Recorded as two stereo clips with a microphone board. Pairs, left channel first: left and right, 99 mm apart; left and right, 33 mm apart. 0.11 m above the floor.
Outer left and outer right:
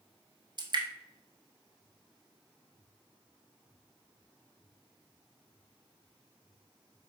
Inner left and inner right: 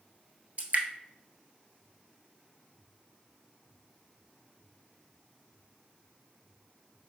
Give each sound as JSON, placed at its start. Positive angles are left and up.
{"t": 0.6, "sound": "dripping", "side_deg": -50, "distance_m": 1.0}